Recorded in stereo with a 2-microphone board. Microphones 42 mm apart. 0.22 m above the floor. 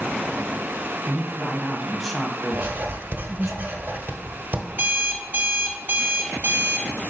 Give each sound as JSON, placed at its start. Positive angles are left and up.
{"t": 1.1, "sound": "a man speaking", "side_deg": 0, "distance_m": 1.1}
{"t": 2.5, "sound": "writing", "side_deg": -60, "distance_m": 1.3}
{"t": 4.7, "sound": "an alarm clock", "side_deg": -50, "distance_m": 0.9}